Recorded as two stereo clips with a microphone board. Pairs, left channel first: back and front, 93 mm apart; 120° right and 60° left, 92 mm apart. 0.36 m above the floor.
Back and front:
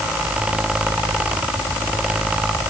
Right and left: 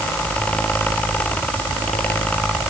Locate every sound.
Only background noise.